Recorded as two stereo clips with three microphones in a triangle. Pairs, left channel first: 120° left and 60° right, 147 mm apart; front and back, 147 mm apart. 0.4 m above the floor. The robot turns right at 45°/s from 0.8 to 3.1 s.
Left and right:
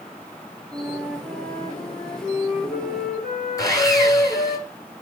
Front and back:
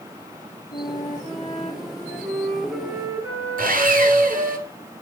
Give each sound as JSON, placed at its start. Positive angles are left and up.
{"t": 0.7, "sound": "a flute", "azimuth_deg": 10, "distance_m": 2.5}
{"t": 3.6, "sound": "sawing", "azimuth_deg": -175, "distance_m": 1.6}